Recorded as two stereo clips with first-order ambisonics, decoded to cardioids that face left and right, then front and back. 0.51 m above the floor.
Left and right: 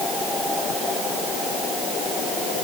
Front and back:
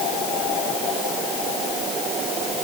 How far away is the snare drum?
No snare drum in this recording.